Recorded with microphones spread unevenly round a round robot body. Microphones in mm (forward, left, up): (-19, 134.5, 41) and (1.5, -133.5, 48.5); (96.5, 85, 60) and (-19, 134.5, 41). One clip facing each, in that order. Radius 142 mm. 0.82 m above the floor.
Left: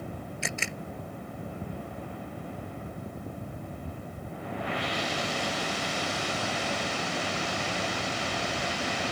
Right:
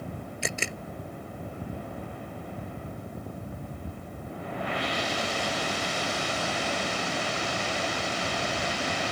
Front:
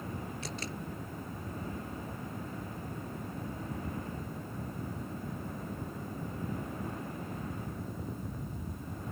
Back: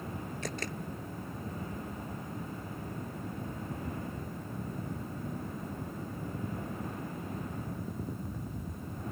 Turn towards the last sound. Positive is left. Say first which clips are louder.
# right 4 dB, back 2 dB
turn(degrees=-140)